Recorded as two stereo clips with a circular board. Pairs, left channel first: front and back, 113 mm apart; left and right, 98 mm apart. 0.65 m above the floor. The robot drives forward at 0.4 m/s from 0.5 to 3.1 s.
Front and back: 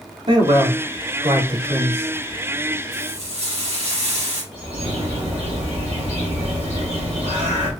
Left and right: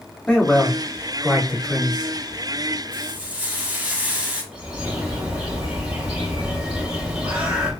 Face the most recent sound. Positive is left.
turn(degrees=-170)